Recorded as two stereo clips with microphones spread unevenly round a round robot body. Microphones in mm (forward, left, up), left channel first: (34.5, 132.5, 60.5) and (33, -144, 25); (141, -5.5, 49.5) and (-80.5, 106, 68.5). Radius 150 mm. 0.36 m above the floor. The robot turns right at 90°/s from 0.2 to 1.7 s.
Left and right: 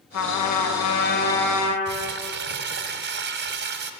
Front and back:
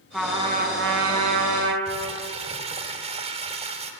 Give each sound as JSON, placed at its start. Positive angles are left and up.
{"t": 0.1, "sound": "a trumpet", "azimuth_deg": 65, "distance_m": 3.0}
{"t": 1.9, "sound": "crumpling", "azimuth_deg": -140, "distance_m": 1.3}